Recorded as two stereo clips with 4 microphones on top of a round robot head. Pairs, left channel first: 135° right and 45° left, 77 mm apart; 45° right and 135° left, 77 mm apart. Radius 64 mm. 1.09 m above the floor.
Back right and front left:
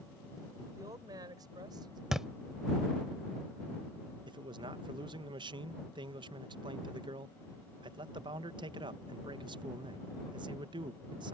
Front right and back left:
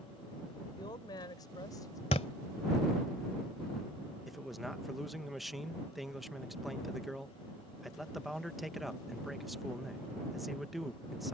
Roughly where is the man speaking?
Ahead left.